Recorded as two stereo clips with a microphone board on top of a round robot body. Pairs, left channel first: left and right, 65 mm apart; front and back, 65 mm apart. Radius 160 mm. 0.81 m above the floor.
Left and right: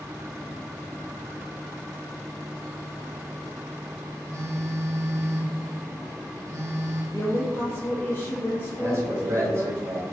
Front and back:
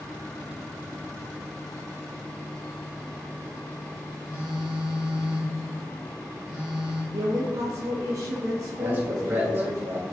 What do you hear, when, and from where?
4.3 s a phone buzzing: 110° right, 1.4 m
7.1 s a woman speaking: 145° left, 0.7 m
8.8 s a man speaking: 120° right, 1.2 m